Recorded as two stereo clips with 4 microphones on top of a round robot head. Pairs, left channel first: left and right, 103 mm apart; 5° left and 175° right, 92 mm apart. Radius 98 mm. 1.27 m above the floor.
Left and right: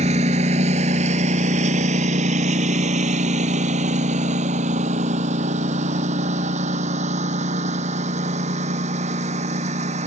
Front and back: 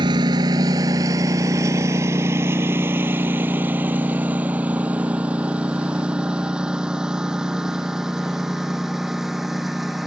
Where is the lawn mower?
125° right; by 10.1 s 90° right.